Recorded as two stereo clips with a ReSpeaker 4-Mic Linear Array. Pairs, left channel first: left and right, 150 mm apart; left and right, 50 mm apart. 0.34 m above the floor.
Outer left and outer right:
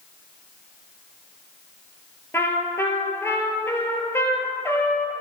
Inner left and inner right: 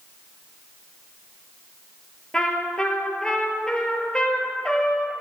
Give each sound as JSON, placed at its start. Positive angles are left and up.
{"t": 2.3, "sound": "a trumpet", "side_deg": 15, "distance_m": 1.8}